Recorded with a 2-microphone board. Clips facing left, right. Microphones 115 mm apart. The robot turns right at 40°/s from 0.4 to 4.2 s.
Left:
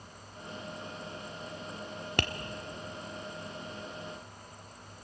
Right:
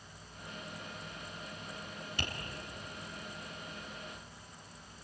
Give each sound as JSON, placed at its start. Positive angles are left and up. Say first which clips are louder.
{"t": 2.2, "sound": "tapping", "louder": "left 9 dB", "side_deg": 65, "distance_m": 1.5}